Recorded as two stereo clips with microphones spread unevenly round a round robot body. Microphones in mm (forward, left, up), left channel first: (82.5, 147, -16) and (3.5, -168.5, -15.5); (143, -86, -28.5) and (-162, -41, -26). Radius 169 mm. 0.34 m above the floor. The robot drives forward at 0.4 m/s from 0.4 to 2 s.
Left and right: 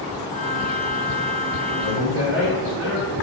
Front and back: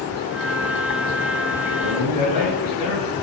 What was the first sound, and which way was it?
A man speaking, 120° right.